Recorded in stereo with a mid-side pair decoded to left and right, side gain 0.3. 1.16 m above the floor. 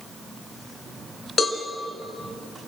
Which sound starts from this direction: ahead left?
A cowbell, at 1.4 s.